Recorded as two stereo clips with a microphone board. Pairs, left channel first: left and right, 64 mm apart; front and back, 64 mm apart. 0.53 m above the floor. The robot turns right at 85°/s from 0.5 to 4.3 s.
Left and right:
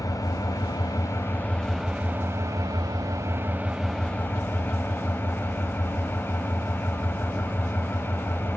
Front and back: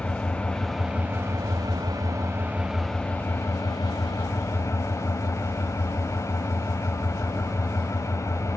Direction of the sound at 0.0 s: 70° left.